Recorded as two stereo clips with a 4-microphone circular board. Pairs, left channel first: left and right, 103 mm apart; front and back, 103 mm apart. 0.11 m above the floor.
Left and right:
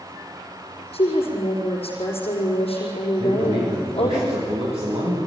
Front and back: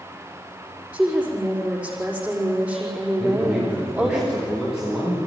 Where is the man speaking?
95° right, 9 m.